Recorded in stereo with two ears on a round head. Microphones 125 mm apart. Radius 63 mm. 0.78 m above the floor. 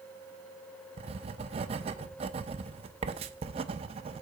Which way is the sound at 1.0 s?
45° right (ahead or behind).